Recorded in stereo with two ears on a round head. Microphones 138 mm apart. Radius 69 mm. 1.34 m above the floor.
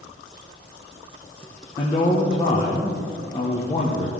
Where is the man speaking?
30° left (ahead or behind), 1.0 m.